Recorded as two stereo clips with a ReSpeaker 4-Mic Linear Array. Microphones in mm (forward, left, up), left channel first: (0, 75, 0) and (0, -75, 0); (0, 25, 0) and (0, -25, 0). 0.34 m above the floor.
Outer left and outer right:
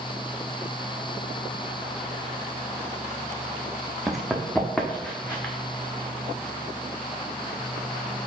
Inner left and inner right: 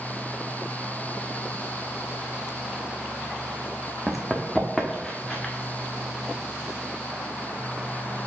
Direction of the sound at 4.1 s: Centre (ahead or behind).